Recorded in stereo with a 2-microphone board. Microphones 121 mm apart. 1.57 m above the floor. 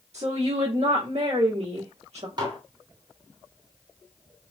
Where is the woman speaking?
65° right (ahead or behind), 1.2 m.